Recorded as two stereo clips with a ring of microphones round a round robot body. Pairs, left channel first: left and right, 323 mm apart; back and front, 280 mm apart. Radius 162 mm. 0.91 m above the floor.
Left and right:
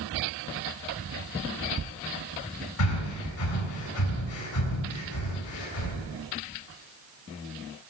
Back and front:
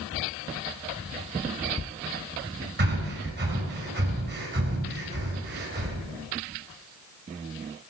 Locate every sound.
2.8 s breathing: 50° left, 3.5 m